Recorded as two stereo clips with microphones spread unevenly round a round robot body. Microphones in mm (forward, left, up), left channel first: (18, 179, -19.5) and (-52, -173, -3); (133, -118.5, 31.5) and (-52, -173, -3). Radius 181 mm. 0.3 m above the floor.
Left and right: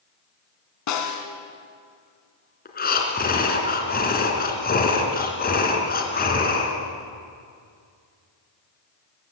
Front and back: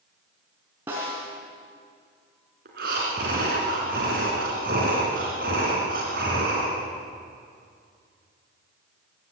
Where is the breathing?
145° left, 2.5 m.